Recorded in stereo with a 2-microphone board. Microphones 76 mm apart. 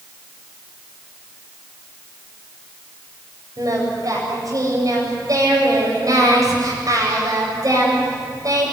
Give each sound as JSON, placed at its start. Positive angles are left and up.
{"t": 3.6, "sound": "singing", "side_deg": -50, "distance_m": 7.5}